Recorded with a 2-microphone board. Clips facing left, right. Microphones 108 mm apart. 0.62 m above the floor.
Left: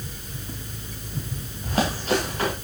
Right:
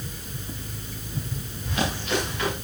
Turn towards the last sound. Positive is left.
turn(degrees=35)  # may be behind; listen again after turning